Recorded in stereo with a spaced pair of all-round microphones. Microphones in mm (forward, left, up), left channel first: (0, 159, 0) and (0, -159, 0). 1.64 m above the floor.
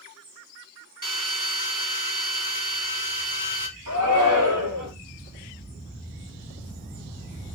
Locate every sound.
1.0 s a drill: 75° right (ahead or behind), 5 m
3.9 s a shout: 70° right (ahead or behind), 4.5 m